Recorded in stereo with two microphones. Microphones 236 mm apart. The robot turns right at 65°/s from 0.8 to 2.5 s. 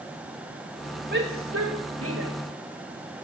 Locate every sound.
1.1 s a shout: 40° right (ahead or behind), 9.5 m; by 2.3 s 60° right (ahead or behind), 9.5 m